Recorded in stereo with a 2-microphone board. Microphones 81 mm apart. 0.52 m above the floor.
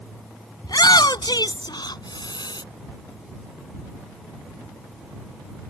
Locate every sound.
0.6 s a shout: 55° left (ahead or behind); by 2.6 s 60° left (ahead or behind)